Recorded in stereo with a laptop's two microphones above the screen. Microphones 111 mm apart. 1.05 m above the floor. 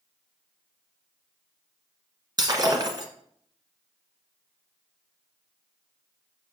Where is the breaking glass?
40° right (ahead or behind), 1.2 m.